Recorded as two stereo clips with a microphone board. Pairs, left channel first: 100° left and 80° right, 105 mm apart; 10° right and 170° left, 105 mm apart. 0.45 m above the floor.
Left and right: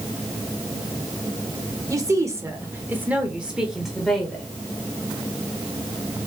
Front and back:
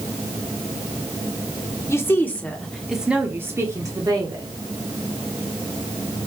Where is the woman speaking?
55° right, 1.1 m; by 4.5 s straight behind, 1.3 m.